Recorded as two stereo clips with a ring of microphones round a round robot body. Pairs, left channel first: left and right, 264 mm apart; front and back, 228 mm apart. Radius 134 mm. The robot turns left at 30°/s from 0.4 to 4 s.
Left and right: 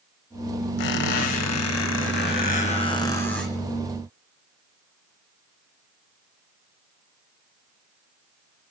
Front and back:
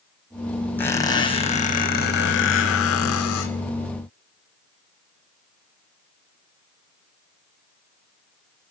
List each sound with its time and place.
0.8 s a squeak: 80° left, 1.7 m; by 3.5 s straight ahead, 1.7 m